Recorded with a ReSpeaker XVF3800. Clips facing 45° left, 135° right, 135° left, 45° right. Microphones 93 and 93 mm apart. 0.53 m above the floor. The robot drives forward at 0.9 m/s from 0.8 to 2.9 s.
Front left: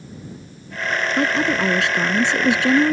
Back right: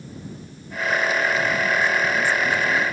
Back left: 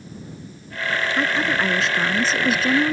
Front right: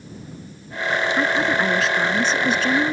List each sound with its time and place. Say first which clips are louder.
1.2 s a woman speaking: front left 3 dB, front right 1 dB; 40° left; by 2.9 s 50° left